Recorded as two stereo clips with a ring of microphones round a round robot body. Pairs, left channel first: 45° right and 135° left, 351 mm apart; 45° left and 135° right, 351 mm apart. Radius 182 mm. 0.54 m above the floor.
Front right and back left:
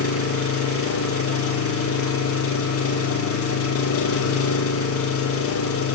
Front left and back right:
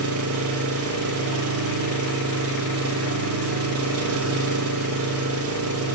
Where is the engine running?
90° right, 1.3 m.